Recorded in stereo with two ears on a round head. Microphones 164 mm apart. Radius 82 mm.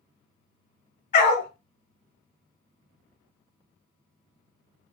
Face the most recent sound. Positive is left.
turn(degrees=45)  # may be behind; listen again after turning